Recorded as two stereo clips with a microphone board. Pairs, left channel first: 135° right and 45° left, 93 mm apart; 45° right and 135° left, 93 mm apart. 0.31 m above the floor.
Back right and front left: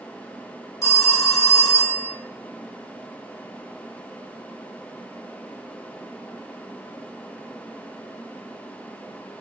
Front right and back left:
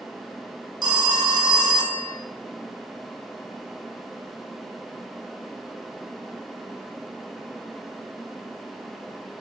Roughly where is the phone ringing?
Behind.